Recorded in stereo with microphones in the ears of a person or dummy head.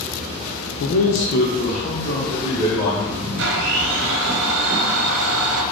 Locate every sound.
0.8 s a man speaking: 70° left (ahead or behind), 0.6 m; by 3.3 s 15° left (ahead or behind), 2.5 m
3.4 s a blender: 65° right (ahead or behind), 0.9 m